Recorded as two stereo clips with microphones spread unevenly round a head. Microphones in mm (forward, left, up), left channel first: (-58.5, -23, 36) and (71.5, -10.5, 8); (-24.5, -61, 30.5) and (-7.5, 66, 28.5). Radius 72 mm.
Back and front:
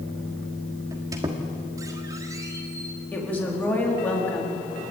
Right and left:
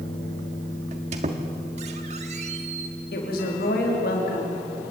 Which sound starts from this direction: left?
A squeak, at 0.9 s.